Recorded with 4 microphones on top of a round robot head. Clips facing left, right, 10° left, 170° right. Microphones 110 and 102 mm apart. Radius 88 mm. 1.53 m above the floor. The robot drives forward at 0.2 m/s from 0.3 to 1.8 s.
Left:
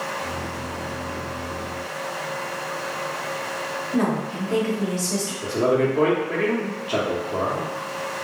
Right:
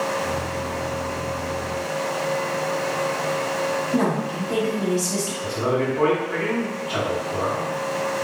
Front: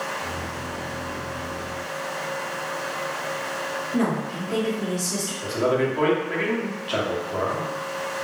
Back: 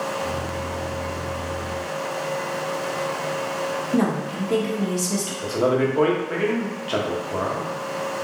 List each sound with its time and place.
3.9 s a woman speaking: 170° right, 0.9 m
5.4 s a man speaking: 135° left, 0.8 m